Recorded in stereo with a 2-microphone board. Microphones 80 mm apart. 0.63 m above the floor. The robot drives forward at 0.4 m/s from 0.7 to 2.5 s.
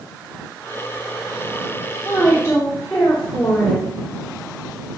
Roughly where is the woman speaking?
Left.